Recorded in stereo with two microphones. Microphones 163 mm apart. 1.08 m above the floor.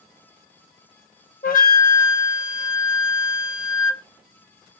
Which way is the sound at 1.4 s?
60° left (ahead or behind).